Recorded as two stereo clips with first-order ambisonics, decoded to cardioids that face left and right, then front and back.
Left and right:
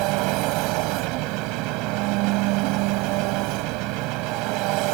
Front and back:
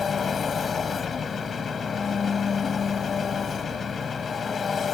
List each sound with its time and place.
0.0 s an engine running: 70° right